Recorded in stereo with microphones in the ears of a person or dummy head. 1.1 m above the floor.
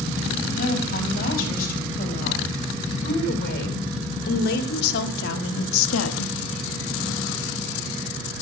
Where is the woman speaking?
50° left (ahead or behind), 5.5 m; by 6.4 s 85° left, 1.2 m.